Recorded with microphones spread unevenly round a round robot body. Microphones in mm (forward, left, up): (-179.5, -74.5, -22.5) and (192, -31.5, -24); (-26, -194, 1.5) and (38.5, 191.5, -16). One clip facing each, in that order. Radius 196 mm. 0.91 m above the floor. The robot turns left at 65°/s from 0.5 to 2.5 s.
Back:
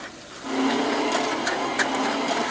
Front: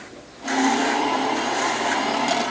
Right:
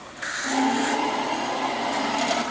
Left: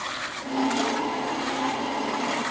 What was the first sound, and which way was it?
Only background noise.